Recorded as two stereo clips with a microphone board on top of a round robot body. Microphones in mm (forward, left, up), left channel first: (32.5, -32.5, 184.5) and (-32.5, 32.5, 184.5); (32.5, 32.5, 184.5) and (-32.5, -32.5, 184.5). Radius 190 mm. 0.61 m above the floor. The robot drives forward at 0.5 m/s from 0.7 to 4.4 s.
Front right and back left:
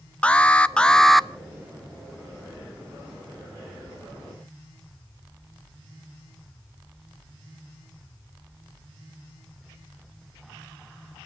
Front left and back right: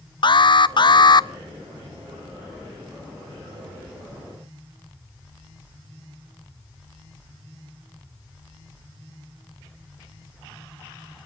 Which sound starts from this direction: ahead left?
An alarm, at 0.2 s.